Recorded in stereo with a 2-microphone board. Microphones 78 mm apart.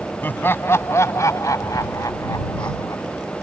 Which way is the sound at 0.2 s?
25° left (ahead or behind).